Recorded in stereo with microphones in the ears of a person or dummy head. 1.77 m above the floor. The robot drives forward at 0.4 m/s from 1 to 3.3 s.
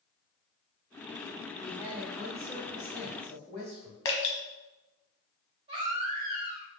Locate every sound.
1.6 s a woman speaking: 5° left (ahead or behind), 0.9 m
4.0 s dripping: 20° left (ahead or behind), 1.1 m
5.7 s a baby crying: 30° right (ahead or behind), 1.1 m